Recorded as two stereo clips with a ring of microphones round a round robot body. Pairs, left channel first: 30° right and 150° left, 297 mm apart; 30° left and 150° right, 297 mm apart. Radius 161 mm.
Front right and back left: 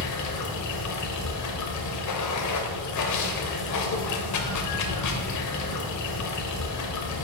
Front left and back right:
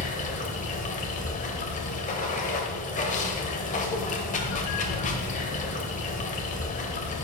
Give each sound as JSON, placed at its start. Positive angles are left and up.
{"t": 0.0, "sound": "running water", "azimuth_deg": -30, "distance_m": 0.9}